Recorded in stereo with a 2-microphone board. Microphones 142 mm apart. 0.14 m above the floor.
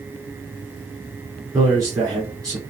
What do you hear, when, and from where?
1.5 s a man speaking: 25° right (ahead or behind), 2 m